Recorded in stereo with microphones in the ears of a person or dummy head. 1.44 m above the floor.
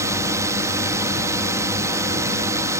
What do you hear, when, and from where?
0.0 s a drone: 15° right (ahead or behind)